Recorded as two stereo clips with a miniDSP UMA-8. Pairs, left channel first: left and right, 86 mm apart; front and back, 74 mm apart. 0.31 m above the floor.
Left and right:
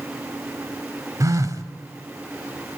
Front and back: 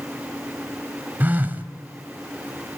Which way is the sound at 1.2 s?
120° right.